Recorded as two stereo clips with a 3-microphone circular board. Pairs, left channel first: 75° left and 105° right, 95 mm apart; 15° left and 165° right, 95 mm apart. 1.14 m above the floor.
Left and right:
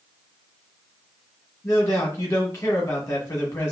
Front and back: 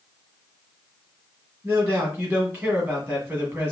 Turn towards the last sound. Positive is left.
turn(degrees=135)